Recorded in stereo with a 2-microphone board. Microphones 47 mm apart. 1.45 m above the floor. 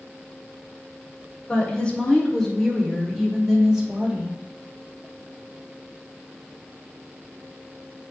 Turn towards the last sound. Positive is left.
turn(degrees=-20)  # may be behind; listen again after turning